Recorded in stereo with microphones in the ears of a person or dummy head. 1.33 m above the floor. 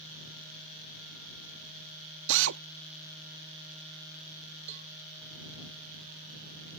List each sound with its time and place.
2.3 s a drill: 70° right (ahead or behind)
4.7 s a cowbell: 40° right (ahead or behind)